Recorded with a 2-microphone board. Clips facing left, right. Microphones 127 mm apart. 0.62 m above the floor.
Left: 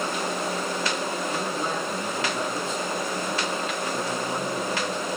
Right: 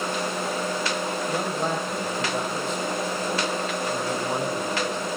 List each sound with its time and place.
1.3 s a man speaking: 60° right (ahead or behind), 4 m